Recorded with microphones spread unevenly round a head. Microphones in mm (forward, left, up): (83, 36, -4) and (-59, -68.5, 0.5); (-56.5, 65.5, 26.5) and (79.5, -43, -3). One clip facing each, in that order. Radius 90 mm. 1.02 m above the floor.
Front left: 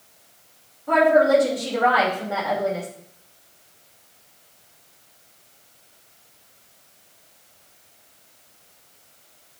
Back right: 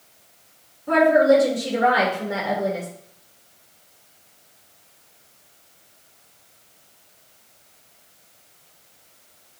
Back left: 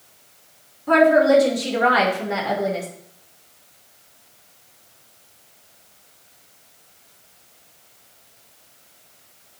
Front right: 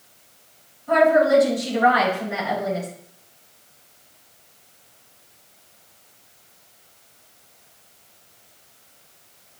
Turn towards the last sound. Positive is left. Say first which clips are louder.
# back right 1 dB, back left 2 dB
turn(degrees=150)